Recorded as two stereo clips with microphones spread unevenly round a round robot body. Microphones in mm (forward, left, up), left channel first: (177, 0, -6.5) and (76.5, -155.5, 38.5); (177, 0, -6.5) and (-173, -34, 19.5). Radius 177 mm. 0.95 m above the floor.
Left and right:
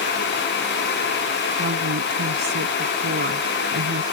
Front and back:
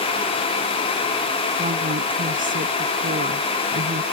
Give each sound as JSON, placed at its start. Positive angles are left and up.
{"t": 1.6, "sound": "a woman speaking", "azimuth_deg": -105}